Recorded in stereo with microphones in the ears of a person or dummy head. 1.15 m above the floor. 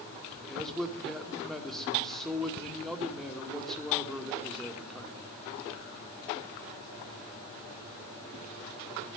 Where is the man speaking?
Centre (ahead or behind), 1.9 m.